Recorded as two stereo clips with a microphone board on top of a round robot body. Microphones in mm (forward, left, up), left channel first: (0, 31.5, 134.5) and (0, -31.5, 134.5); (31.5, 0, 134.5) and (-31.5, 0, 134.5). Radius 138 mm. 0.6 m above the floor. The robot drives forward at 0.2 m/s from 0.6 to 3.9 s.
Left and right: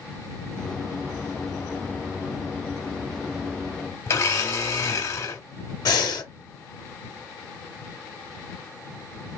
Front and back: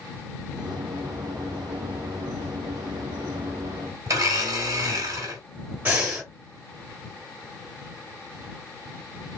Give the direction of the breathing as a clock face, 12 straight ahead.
8 o'clock.